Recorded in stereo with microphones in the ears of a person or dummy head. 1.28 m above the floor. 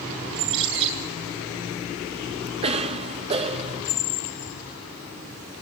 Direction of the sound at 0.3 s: 80° right.